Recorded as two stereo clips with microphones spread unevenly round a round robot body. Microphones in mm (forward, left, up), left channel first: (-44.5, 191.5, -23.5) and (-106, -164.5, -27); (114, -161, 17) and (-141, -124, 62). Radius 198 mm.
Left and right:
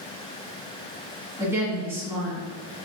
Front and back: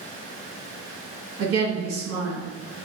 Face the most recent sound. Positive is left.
turn(degrees=180)